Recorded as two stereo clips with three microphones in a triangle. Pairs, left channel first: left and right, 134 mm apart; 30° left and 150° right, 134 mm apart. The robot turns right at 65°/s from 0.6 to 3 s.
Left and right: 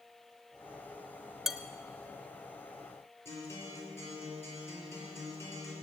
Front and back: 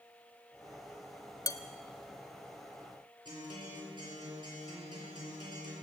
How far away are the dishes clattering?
About 0.8 m.